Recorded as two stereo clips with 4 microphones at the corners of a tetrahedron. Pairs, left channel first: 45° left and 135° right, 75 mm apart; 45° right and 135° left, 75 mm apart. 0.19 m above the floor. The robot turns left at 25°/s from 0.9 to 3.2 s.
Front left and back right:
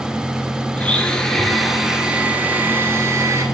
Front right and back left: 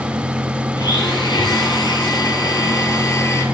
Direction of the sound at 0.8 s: 30° right.